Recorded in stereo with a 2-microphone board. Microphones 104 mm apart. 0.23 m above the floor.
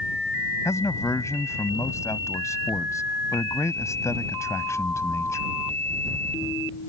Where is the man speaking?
30° left (ahead or behind).